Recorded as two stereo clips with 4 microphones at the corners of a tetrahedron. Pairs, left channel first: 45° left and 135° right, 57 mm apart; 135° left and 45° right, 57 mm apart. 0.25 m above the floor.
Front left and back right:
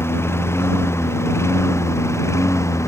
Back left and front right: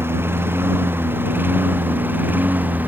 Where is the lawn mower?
Straight ahead; by 2.9 s 15° left.